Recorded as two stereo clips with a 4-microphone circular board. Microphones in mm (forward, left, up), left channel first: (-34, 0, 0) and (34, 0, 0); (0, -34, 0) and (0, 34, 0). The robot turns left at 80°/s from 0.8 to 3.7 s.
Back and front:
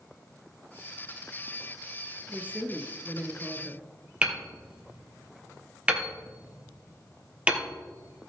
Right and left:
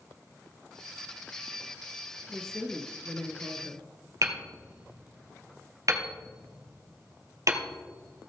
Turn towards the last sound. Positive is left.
turn(degrees=70)